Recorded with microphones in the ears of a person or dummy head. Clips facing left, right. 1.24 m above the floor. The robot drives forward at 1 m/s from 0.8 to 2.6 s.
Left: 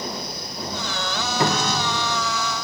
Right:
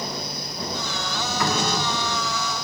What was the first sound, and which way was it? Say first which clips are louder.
A cupboard door: left 2 dB; 20° left (ahead or behind).